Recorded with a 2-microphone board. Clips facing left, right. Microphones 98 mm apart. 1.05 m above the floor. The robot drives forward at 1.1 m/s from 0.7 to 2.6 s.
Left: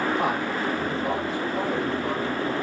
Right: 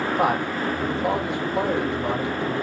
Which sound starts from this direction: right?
A man speaking, at 0.2 s.